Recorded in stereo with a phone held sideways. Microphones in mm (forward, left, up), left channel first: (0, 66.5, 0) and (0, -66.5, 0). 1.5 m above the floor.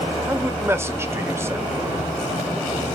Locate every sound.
0.3 s a man speaking: 20° right (ahead or behind), 0.8 m